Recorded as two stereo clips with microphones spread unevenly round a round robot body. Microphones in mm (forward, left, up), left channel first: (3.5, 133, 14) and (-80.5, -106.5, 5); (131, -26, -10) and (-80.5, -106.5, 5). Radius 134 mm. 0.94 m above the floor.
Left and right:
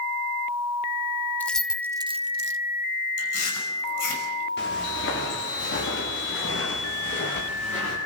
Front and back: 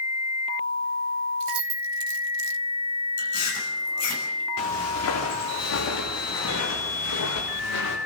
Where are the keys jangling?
155° left, 1.4 m; by 2.6 s 150° right, 0.8 m.